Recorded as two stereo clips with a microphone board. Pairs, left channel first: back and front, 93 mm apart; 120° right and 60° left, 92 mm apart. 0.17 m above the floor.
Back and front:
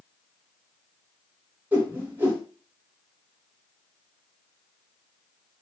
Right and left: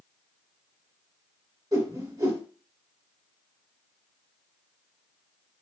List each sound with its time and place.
1.7 s a whoosh: 60° left, 2.0 m